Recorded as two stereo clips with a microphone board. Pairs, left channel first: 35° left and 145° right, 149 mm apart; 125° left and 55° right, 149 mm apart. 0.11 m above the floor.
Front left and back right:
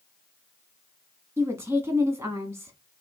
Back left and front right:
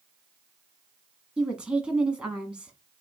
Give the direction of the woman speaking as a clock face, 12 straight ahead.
4 o'clock.